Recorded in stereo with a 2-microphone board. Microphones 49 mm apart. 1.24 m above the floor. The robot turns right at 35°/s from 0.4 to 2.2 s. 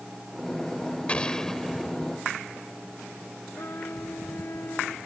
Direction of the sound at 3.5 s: 50° left (ahead or behind).